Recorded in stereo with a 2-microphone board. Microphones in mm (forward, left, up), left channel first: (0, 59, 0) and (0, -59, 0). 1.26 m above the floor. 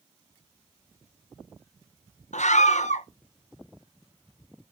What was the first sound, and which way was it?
A scream, 85° left.